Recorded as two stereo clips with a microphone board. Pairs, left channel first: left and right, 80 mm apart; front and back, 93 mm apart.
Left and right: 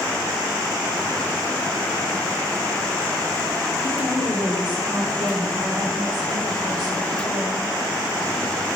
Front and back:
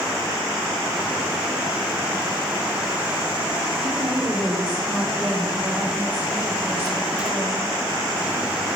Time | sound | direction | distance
3.8 | a woman speaking | 100° right | 7.5 m